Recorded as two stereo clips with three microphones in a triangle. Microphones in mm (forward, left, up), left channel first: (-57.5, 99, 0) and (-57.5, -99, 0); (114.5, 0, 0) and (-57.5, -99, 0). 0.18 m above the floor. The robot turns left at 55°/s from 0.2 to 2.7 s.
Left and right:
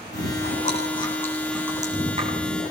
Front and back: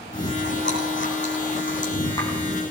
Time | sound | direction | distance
0.1 | chewing | 70° left | 9.5 m